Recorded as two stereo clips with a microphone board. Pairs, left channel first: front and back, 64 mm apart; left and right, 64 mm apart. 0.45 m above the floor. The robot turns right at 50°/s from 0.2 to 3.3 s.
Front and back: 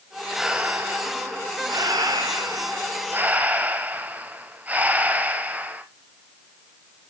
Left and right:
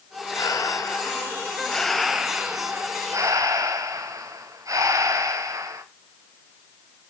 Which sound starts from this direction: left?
Breathing, at 0.3 s.